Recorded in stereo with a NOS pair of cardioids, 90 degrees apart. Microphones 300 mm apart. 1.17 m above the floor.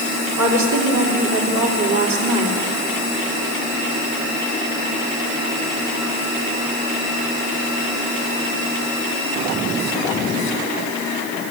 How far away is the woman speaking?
About 3.5 m.